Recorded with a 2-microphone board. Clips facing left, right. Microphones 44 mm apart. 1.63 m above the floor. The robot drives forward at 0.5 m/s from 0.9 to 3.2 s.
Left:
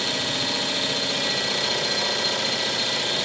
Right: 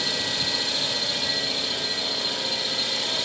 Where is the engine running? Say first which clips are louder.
Left 2 dB; 45° left (ahead or behind), 0.9 m.